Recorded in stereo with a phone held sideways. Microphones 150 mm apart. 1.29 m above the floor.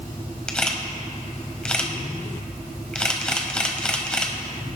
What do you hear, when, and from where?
0.5 s a camera shutter: 5° left (ahead or behind), 1.3 m